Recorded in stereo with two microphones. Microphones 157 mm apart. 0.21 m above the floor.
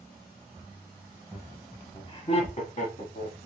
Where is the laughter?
5° right (ahead or behind), 1.1 m; by 3.4 s 60° left (ahead or behind), 2.0 m.